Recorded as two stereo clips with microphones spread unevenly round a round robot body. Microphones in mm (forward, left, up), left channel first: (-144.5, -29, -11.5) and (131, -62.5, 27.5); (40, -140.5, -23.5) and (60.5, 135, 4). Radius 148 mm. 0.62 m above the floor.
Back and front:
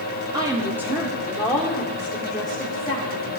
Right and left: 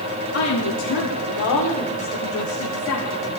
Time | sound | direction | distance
0.3 | a woman speaking | 85° right | 1.6 m